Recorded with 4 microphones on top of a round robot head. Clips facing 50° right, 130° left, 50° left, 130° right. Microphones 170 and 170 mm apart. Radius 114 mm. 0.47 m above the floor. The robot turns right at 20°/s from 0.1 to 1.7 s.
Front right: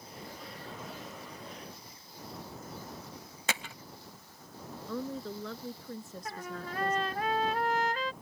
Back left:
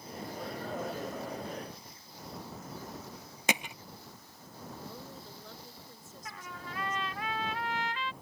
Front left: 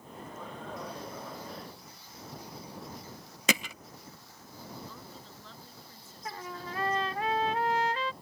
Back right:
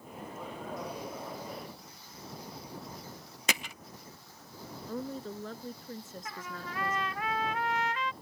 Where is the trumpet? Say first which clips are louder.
Front right 4 dB, front left 6 dB; 5° right.